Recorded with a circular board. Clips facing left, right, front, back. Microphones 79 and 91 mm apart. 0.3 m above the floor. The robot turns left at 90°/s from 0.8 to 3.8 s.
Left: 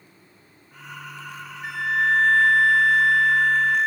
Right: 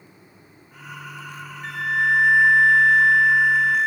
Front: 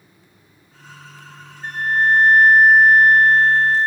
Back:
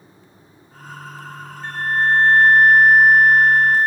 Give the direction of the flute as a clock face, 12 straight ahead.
11 o'clock.